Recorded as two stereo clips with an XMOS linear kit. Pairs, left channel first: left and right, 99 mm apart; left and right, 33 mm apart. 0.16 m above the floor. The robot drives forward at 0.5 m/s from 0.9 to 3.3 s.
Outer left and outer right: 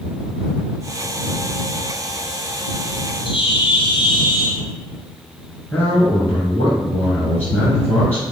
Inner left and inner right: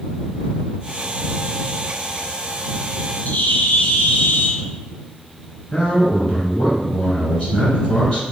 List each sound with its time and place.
3.2 s a bird: 55° left (ahead or behind), 1.5 m
5.7 s a man speaking: 20° left (ahead or behind), 1.6 m